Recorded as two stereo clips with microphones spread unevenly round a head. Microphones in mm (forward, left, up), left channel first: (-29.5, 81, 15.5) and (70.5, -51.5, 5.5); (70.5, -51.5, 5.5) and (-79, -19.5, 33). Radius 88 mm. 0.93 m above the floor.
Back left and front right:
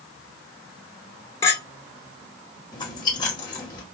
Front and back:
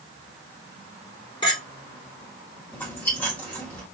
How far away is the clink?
About 2 m.